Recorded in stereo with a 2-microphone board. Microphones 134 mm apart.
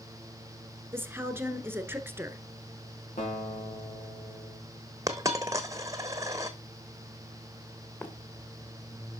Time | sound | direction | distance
0.9 | a woman speaking | 15° right (ahead or behind) | 1.3 m
3.2 | a guitar | 75° left (ahead or behind) | 5 m
5.1 | a dropped coin | 25° right (ahead or behind) | 1.1 m
8.0 | running footsteps | 15° left (ahead or behind) | 1.9 m